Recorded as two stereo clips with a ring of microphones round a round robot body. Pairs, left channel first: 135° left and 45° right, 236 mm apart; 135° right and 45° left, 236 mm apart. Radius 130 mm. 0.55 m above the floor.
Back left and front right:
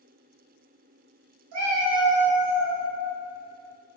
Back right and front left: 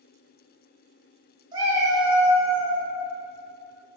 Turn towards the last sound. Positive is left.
turn(degrees=-85)